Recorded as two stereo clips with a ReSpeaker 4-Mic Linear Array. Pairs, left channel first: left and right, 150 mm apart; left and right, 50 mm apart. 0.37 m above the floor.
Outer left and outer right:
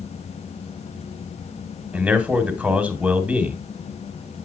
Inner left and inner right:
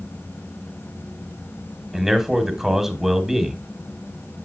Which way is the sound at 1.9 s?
5° right (ahead or behind).